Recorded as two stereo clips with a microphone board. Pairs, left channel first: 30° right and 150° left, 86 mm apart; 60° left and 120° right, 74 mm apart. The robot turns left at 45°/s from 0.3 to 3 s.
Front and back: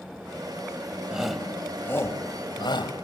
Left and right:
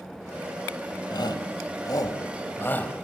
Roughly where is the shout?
Left.